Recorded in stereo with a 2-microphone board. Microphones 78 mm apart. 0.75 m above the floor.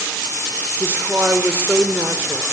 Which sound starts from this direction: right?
A woman speaking, at 0.8 s.